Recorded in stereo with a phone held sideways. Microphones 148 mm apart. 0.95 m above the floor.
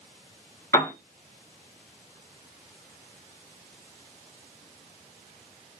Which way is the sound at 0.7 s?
25° left (ahead or behind).